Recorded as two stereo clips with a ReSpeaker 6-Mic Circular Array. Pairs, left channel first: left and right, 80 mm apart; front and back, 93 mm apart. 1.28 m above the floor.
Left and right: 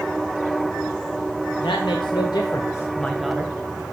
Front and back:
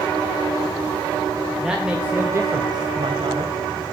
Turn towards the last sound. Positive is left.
turn(degrees=-160)